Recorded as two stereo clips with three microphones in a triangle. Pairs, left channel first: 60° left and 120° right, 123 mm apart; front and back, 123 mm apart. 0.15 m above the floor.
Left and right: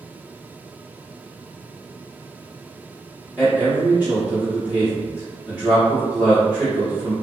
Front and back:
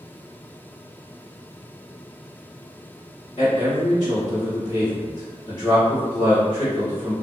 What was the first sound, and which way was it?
A man speaking, 40° right.